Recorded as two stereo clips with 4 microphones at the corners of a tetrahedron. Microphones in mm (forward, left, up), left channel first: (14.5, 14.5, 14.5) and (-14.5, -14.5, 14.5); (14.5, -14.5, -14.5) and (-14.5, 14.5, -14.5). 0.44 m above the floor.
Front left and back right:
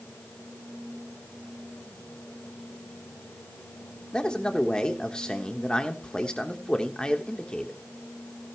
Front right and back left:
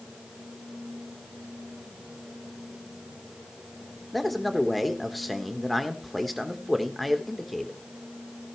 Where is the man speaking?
45° left, 1.1 m.